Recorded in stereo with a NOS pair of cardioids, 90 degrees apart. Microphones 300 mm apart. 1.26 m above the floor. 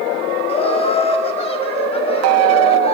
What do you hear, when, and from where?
0.5 s laughter: 20° left, 6 m